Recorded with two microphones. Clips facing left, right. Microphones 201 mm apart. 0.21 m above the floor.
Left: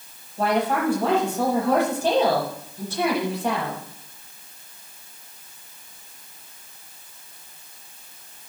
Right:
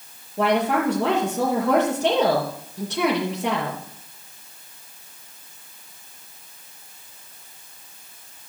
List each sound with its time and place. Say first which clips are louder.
0.4 s a woman speaking: right 2 dB; 75° right (ahead or behind), 5 m